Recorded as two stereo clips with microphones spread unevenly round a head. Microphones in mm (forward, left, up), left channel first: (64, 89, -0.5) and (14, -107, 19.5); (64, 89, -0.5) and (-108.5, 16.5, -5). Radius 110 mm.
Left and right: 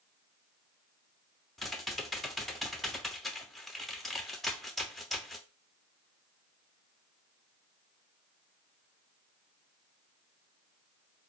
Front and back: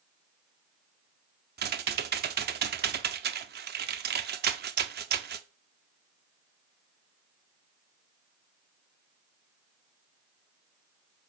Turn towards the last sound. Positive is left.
turn(degrees=165)